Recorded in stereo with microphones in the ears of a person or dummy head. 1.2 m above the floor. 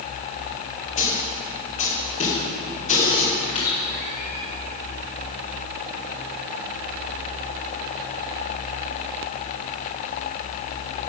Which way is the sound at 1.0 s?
35° left (ahead or behind).